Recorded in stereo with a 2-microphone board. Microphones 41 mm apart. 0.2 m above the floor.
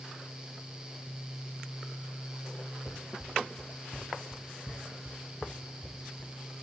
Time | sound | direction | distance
2.9 | running footsteps | 5° left (ahead or behind) | 2.5 m